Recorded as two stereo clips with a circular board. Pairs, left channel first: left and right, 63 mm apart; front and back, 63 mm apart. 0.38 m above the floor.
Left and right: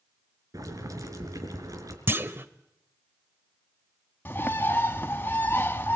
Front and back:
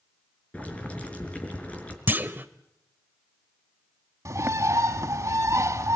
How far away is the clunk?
About 1.0 m.